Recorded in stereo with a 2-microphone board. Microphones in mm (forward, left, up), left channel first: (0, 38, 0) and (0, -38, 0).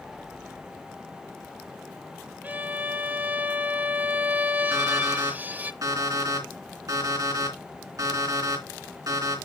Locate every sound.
2.4 s a violin: 20° right (ahead or behind), 0.6 m
4.7 s an alarm clock: 50° right (ahead or behind), 3 m